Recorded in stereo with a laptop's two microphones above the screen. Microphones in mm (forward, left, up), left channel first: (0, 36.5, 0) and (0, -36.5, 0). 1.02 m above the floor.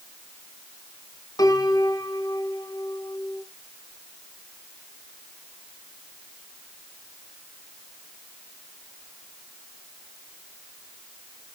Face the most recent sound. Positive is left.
turn(degrees=60)  # may be behind; listen again after turning